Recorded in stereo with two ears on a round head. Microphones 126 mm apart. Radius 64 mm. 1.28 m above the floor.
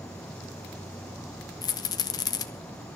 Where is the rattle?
25° left (ahead or behind), 0.8 m.